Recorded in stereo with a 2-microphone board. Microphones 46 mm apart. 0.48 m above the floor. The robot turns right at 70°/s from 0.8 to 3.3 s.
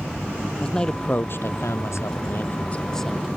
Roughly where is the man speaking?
Ahead.